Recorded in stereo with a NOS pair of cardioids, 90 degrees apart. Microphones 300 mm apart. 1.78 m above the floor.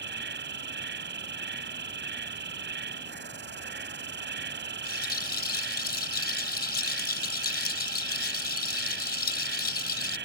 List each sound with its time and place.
0.0 s an insect: 35° right
4.8 s a rattle: 30° left